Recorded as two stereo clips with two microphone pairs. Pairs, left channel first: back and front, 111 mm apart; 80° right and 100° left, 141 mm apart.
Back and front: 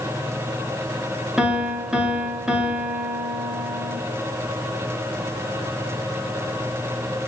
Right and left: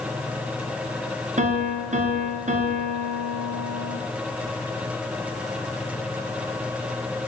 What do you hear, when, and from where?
1.4 s a piano: 80° left, 0.6 m